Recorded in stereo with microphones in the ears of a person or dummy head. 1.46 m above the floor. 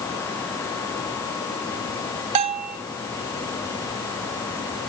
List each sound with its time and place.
2.4 s a bell: 35° right (ahead or behind), 0.6 m